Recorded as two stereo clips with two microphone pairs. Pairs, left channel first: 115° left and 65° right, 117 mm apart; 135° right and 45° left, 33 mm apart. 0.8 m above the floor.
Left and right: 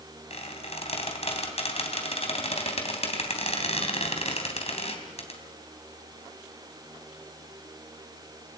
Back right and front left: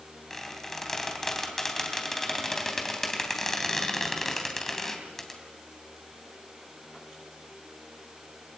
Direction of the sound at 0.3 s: 145° left.